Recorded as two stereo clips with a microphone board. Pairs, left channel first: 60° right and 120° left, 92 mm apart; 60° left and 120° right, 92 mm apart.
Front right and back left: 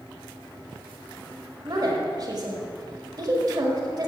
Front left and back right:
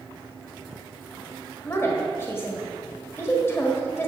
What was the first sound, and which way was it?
A woman speaking, 110° left.